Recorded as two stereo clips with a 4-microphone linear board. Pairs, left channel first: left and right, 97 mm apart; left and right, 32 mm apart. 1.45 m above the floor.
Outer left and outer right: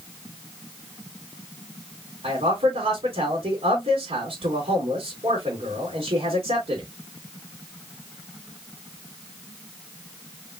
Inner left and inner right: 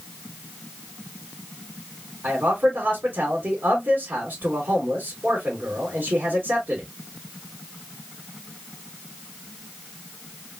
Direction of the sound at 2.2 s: 85° right.